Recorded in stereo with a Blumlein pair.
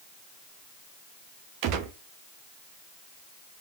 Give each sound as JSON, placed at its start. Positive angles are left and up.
{"t": 1.6, "sound": "a gunshot", "azimuth_deg": -40, "distance_m": 0.7}